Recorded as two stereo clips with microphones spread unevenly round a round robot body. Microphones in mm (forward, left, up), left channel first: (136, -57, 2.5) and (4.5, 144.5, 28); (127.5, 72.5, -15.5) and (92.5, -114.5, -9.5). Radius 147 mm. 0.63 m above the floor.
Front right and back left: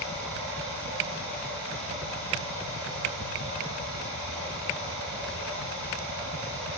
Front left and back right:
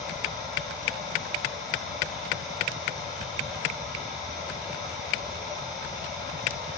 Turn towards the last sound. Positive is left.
turn(degrees=170)